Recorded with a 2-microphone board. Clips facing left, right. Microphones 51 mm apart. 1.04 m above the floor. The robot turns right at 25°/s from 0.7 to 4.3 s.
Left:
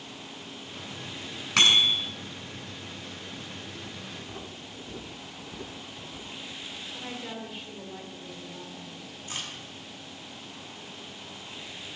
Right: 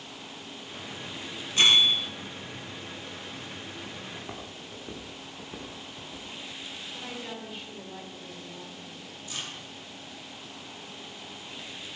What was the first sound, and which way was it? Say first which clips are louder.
A bicycle bell: even; 80° left.